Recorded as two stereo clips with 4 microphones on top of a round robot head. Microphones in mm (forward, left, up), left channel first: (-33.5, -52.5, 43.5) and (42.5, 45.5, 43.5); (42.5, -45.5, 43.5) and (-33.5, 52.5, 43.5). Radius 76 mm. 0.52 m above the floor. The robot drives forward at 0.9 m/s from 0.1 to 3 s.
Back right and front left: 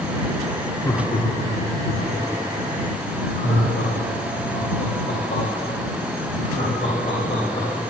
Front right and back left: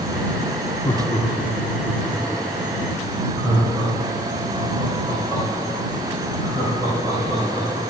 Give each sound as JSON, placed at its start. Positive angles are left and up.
{"t": 0.8, "sound": "laughter", "azimuth_deg": -80, "distance_m": 0.9}